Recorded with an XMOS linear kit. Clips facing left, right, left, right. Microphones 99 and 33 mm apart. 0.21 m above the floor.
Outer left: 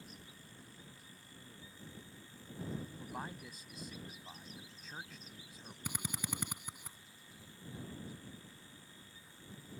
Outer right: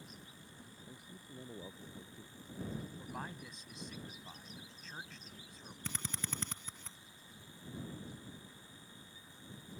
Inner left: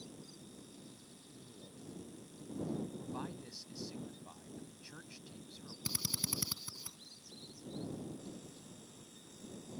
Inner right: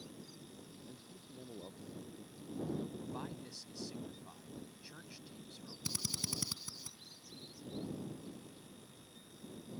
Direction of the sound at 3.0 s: 5° left (ahead or behind).